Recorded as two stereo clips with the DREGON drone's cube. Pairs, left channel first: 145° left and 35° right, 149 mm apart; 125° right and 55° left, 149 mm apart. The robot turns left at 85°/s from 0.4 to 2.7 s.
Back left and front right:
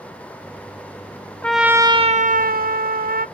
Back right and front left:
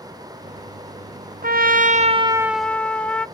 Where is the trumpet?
65° left, 0.6 m; by 3.3 s 45° right, 0.6 m.